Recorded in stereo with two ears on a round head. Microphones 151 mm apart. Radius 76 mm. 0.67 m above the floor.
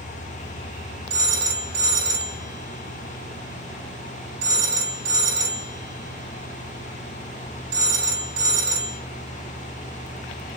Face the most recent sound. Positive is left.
turn(degrees=-65)  # may be behind; listen again after turning